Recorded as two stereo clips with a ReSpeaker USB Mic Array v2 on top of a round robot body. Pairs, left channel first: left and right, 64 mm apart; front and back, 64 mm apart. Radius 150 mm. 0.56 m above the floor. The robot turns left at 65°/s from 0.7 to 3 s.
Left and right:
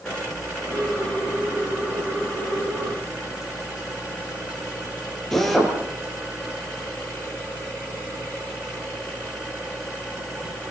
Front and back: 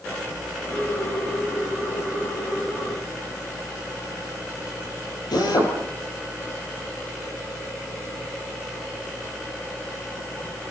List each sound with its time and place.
5.3 s a drill: 5° left, 7 m